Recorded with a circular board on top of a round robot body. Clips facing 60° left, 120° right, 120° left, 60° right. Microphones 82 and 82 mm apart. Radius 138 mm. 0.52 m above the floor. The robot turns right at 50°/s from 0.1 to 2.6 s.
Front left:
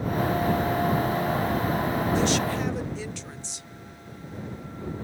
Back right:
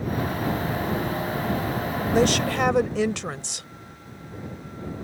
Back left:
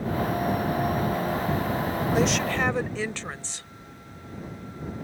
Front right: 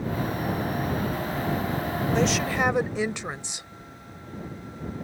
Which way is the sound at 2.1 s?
160° right.